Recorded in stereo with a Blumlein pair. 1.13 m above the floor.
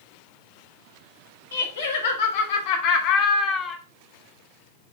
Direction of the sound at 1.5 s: 65° left.